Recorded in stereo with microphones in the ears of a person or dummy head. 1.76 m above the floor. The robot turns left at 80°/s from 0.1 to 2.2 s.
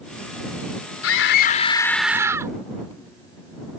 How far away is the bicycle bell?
No bicycle bell in this recording.